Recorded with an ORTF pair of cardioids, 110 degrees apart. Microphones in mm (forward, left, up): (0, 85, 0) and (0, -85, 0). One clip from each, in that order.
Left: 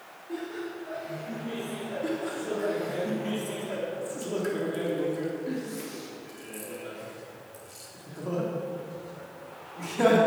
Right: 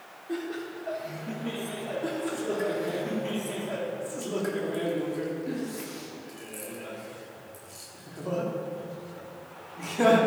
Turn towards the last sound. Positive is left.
turn(degrees=0)